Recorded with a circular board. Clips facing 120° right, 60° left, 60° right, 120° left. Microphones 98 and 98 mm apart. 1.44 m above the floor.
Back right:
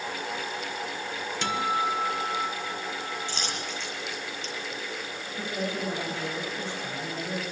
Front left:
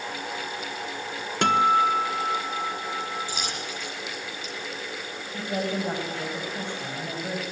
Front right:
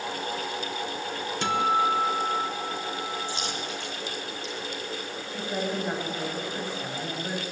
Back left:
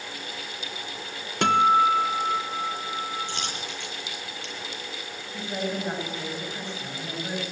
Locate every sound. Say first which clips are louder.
1.4 s a guitar: front left 8 dB, back left 5 dB; 95° left, 1.4 m
3.3 s a dropped coin: front left 1 dB, front right 1 dB; 145° left, 8 m
5.3 s a woman speaking: front left 3 dB, even; 25° left, 7.5 m